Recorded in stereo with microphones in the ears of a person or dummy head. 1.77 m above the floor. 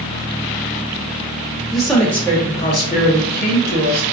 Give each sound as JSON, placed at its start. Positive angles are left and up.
{"t": 1.7, "sound": "a woman speaking", "side_deg": -5, "distance_m": 1.1}